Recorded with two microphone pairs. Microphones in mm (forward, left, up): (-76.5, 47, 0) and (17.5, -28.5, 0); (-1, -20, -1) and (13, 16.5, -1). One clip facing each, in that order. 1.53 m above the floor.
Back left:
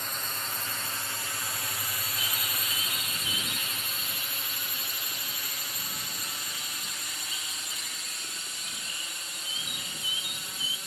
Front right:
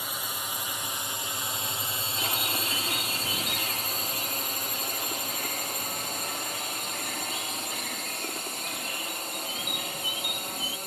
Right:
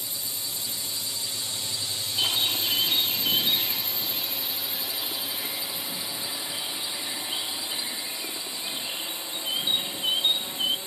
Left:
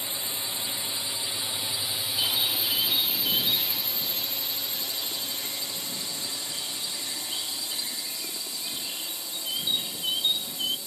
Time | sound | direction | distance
0.0 | a drone | 40° left | ?
2.2 | a bird | 40° right | ?